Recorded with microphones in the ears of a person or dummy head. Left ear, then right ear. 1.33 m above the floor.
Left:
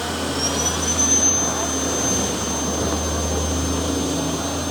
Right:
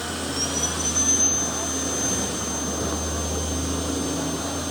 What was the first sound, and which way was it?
A vehicle, 20° left (ahead or behind).